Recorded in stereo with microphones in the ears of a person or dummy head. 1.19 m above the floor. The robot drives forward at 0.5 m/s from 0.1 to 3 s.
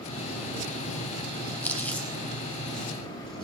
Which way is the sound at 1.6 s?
10° left (ahead or behind).